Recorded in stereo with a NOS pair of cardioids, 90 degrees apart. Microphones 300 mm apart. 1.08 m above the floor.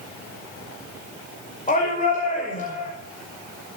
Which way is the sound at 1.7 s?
25° left.